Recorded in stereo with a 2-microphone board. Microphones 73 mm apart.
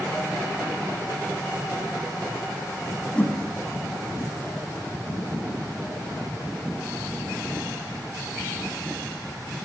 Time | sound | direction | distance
3.1 | a whoosh | 20° left (ahead or behind) | 0.9 m